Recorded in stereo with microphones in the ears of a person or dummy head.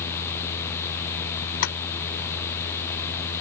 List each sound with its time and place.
1.6 s tapping: 65° left (ahead or behind)